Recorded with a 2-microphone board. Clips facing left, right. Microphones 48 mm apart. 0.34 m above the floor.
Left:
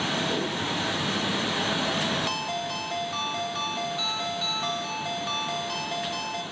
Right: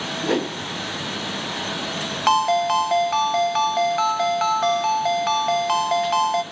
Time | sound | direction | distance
0.2 | a whoosh | 75° right (ahead or behind) | 1.7 m
2.3 | a ringtone | 65° right (ahead or behind) | 0.8 m